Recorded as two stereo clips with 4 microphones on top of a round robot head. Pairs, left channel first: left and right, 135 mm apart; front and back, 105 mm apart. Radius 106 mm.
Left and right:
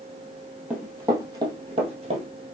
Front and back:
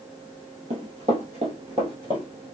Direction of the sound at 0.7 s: 170° right.